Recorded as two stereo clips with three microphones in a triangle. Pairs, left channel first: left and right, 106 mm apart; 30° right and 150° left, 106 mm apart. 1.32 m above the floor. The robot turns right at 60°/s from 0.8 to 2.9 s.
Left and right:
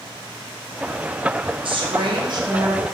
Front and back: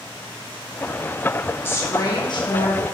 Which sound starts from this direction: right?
A woman speaking, at 1.6 s.